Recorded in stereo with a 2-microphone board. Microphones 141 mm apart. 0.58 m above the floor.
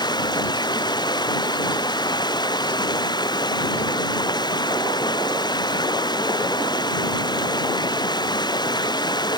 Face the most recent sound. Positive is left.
turn(degrees=30)  # may be behind; listen again after turning